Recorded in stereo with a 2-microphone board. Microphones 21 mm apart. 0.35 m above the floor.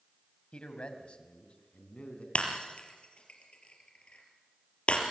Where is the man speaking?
55° left (ahead or behind), 2.5 m; by 2.2 s 65° left (ahead or behind), 3.5 m.